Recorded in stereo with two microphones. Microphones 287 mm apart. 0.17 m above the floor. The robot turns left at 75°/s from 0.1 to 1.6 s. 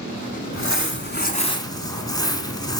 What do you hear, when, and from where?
0.5 s crumpling: 100° left, 1.4 m; by 2.8 s 20° left, 1.4 m